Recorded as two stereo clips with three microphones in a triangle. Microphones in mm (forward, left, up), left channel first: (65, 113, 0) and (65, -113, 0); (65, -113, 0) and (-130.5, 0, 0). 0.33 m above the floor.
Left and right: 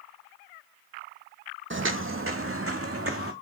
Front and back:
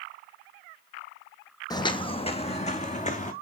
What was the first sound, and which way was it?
Footsteps, 100° right.